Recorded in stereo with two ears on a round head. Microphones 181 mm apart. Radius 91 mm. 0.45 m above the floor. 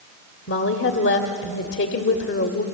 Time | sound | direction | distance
0.5 | a woman speaking | 60° left (ahead or behind) | 1.4 m